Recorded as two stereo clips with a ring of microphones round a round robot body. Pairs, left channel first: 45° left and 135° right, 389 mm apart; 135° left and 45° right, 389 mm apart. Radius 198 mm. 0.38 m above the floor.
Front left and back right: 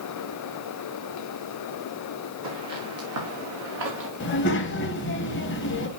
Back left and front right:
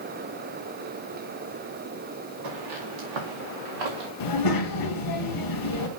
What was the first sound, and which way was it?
Footsteps, 85° right.